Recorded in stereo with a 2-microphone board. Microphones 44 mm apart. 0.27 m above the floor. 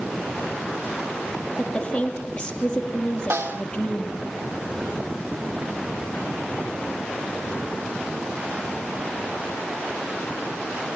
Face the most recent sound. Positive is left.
turn(degrees=-80)